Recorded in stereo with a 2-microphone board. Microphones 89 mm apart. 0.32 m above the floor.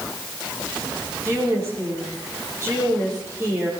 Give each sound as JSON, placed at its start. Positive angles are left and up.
{"t": 1.2, "sound": "a woman speaking", "side_deg": -30, "distance_m": 7.0}